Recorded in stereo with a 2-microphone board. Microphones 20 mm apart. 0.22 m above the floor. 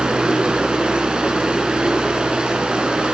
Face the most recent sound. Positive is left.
turn(degrees=-55)  # may be behind; listen again after turning